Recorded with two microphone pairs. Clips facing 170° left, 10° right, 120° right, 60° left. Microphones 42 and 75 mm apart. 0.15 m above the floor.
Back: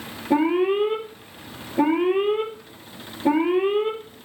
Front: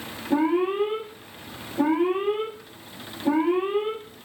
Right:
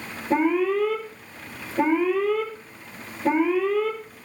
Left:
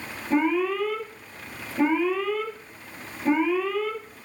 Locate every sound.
0.3 s an alarm: straight behind, 5 m